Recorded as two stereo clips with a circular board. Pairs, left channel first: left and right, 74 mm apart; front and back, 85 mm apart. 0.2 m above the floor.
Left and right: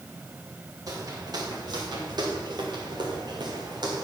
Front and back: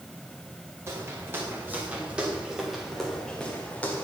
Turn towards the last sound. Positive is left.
turn(degrees=-70)